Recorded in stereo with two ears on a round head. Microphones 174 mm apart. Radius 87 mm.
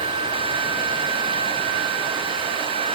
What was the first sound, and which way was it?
Only background noise.